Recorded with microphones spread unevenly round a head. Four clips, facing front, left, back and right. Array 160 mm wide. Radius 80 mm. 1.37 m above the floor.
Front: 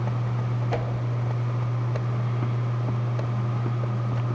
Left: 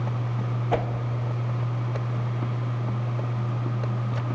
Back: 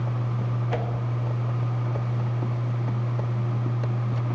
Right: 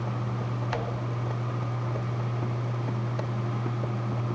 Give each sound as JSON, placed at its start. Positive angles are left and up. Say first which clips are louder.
{"t": 0.7, "sound": "a whoosh", "louder": "left 8 dB, even", "azimuth_deg": 85, "distance_m": 0.6}